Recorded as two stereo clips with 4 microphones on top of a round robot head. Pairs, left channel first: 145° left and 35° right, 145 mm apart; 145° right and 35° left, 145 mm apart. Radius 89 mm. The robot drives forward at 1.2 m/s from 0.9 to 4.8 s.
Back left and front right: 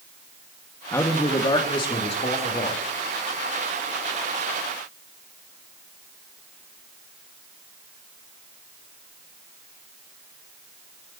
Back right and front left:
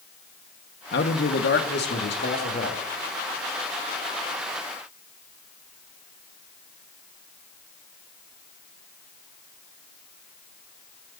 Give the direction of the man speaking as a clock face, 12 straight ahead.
5 o'clock.